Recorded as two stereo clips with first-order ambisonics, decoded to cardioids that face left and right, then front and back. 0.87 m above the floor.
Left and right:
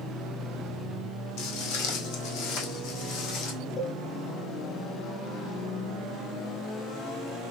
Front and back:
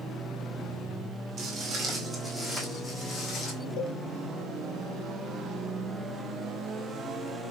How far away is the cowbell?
About 1.5 m.